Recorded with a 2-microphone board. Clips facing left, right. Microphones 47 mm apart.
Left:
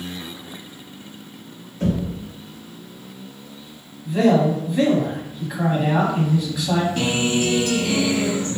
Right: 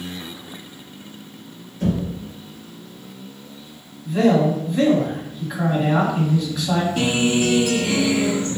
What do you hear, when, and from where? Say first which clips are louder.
1.8 s knocking: even; 50° left (ahead or behind), 1.7 m
4.0 s a man speaking: even; 5° left (ahead or behind), 1.4 m
7.0 s a guitar: right 2 dB; 5° right (ahead or behind), 0.9 m